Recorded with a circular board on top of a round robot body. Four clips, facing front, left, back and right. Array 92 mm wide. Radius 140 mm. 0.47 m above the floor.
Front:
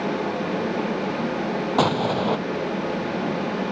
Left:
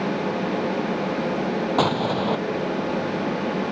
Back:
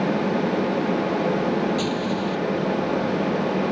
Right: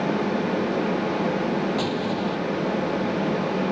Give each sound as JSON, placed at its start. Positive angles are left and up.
{"t": 1.8, "sound": "an explosion", "azimuth_deg": 40}